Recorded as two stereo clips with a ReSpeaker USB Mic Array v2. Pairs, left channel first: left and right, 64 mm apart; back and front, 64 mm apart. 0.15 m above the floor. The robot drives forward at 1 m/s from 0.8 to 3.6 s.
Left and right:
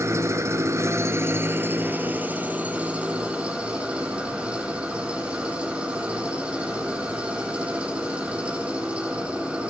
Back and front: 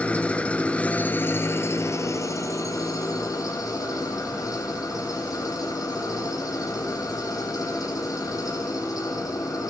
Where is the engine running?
115° right, 1.4 m; by 9.7 s 160° right, 3.5 m.